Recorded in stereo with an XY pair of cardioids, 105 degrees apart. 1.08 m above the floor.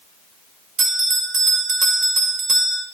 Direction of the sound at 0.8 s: 60° right.